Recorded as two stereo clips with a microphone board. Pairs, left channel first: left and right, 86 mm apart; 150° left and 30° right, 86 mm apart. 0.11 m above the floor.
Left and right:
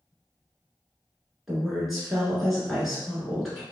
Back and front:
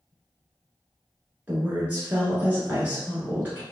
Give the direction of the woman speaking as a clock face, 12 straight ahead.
12 o'clock.